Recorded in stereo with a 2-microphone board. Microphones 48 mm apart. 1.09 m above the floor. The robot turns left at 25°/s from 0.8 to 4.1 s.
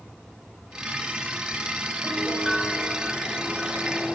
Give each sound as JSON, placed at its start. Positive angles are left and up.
{"t": 2.0, "sound": "a piano", "azimuth_deg": 30, "distance_m": 3.0}